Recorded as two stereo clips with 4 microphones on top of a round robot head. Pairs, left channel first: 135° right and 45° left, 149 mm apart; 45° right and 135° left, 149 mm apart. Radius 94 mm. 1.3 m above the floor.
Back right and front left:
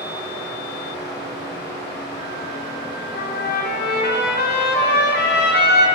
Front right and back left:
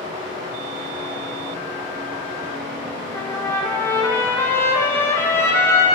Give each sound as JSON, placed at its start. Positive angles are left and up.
{"t": 0.0, "sound": "running water", "azimuth_deg": -155, "distance_m": 5.0}
{"t": 3.1, "sound": "a trumpet", "azimuth_deg": -120, "distance_m": 1.4}